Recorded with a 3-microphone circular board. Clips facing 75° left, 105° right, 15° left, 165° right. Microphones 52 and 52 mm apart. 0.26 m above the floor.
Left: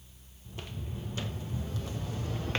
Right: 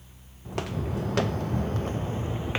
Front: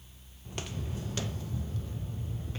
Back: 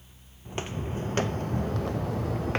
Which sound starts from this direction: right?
Footsteps, at 0.5 s.